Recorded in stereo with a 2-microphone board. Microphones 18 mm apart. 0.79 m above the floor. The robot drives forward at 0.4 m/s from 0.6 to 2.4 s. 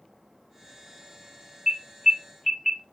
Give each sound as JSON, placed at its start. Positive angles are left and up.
{"t": 1.7, "sound": "an alarm", "side_deg": -15, "distance_m": 2.0}